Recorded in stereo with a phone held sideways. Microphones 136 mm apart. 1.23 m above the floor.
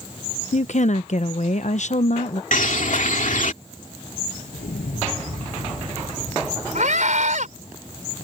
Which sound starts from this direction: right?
A scream, at 6.8 s.